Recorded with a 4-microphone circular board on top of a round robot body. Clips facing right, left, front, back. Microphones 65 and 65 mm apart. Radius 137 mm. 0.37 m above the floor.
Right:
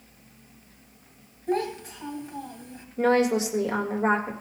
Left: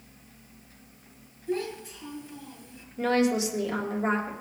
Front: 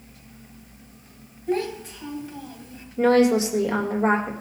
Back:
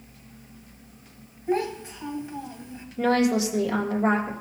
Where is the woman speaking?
50° right, 2 m.